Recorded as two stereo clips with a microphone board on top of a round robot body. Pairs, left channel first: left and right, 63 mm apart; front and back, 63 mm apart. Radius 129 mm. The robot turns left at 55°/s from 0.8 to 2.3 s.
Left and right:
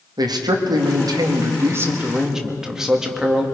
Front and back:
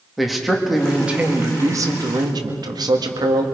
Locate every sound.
0.2 s a man speaking: 90° right, 2 m; by 3.5 s 170° right, 2 m